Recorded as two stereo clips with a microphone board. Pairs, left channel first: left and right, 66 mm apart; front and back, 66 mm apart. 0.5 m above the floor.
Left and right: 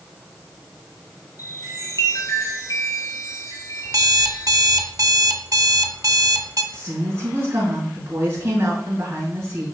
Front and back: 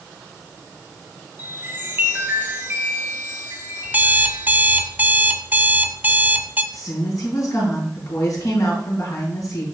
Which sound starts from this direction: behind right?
An alarm clock, at 3.9 s.